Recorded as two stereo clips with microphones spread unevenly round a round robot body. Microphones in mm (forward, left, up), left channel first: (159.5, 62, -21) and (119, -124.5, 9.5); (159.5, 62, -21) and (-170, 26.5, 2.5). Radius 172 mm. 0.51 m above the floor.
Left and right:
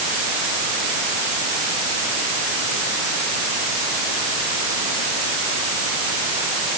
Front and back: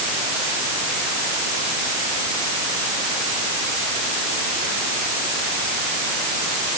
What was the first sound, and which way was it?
Only background noise.